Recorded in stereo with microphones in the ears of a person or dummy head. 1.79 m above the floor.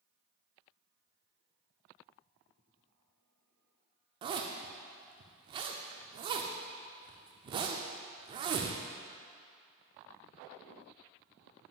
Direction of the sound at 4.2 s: 30° right (ahead or behind).